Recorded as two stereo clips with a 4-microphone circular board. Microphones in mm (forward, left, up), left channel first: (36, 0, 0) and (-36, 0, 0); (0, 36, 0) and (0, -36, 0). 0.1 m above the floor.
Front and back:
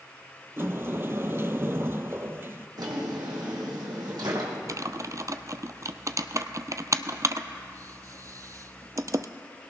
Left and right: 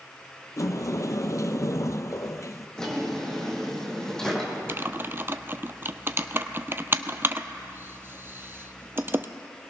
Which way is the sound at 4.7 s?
145° right.